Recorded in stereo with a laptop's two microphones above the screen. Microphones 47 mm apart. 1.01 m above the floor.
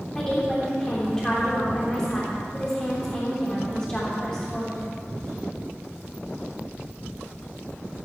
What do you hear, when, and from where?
0.1 s a woman speaking: 10° left (ahead or behind), 3.5 m